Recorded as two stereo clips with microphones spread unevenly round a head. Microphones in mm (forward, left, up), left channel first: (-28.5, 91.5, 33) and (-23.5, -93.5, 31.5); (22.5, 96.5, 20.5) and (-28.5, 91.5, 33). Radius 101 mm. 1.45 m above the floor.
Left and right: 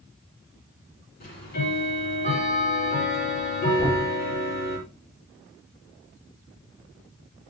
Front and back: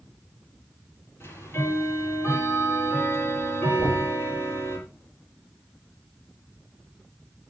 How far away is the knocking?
About 4 m.